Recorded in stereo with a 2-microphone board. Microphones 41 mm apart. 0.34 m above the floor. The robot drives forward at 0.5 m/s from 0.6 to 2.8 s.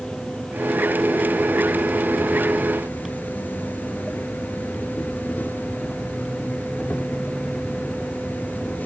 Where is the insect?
30° left (ahead or behind), 2.5 m; by 8.9 s 50° left (ahead or behind), 1.4 m.